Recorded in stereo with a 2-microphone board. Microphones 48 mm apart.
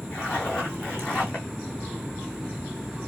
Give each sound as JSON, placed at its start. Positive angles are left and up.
{"t": 0.1, "sound": "a zipper", "side_deg": 20, "distance_m": 3.0}